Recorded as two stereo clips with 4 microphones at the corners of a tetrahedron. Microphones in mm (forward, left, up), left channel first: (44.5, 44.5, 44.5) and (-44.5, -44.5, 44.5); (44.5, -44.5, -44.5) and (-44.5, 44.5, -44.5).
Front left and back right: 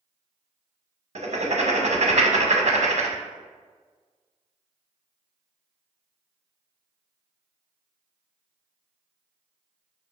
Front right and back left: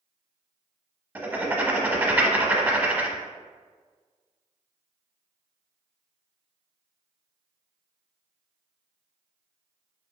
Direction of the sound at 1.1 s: 155° right.